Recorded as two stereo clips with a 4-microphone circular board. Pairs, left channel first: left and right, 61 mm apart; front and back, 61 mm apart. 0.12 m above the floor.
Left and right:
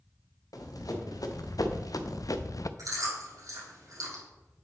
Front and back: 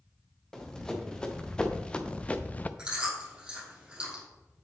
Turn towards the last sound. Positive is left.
turn(degrees=-105)